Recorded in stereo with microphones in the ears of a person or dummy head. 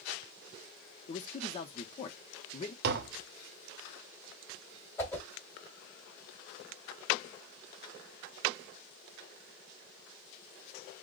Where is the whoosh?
15° left (ahead or behind), 1.9 m.